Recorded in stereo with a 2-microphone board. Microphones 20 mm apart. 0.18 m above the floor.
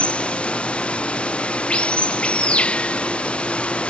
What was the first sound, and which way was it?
Running water, 70° left (ahead or behind).